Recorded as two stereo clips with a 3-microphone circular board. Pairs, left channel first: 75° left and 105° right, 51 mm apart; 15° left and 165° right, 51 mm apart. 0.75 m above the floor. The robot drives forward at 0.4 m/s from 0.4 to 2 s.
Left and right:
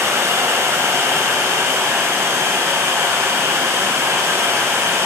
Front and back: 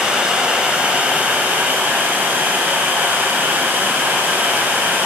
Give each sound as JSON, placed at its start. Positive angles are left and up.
{"t": 0.0, "sound": "running water", "azimuth_deg": -95, "distance_m": 1.5}